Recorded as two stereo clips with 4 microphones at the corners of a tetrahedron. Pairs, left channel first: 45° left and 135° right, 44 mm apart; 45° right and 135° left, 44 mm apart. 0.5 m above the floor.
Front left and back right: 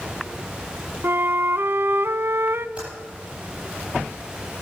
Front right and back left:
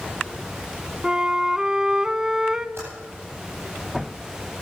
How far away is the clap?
I don't hear a clap.